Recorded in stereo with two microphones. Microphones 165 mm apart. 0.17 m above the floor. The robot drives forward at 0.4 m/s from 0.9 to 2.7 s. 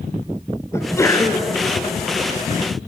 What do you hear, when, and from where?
0.7 s a sneeze: 15° left (ahead or behind), 2 m; by 1.5 s 20° left (ahead or behind), 2.0 m